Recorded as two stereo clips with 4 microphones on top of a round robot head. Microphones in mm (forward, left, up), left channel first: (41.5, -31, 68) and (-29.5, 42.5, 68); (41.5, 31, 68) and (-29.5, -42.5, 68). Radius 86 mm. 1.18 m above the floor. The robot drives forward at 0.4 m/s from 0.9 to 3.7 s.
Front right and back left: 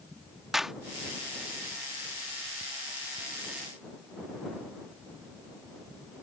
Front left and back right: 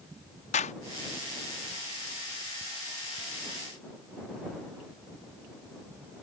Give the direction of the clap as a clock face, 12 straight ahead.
10 o'clock.